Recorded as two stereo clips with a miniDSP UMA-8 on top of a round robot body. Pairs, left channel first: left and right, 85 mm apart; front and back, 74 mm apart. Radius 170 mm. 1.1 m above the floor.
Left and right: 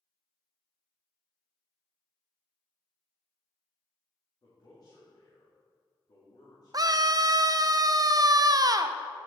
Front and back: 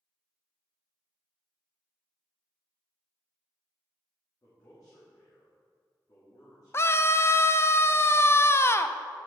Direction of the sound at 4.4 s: 45° left.